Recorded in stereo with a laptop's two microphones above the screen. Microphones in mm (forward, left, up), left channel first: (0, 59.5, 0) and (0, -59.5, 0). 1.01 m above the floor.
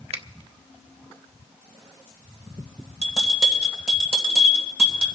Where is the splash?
No splash in this recording.